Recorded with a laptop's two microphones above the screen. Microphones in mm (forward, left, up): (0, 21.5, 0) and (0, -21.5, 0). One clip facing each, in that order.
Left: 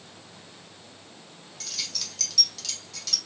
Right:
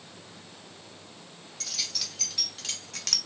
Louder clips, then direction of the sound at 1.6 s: Even; centre (ahead or behind).